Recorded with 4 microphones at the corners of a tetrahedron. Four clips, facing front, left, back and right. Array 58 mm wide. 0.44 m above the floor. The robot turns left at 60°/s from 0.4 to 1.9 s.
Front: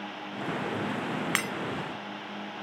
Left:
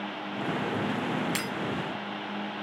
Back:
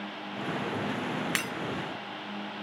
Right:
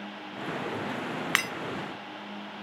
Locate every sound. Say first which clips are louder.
1.4 s breaking glass: right 5 dB, front 4 dB; 75° right, 1.4 m; by 1.5 s 85° right, 1.4 m